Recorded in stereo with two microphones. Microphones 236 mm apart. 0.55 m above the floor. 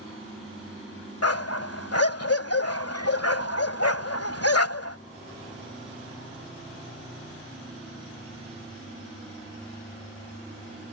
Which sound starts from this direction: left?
A dog barking, at 1.2 s.